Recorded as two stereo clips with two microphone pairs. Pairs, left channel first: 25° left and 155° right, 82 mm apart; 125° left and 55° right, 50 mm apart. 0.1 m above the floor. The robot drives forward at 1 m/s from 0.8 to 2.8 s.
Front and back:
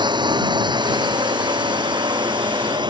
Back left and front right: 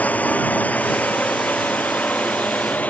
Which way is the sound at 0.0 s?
Straight behind.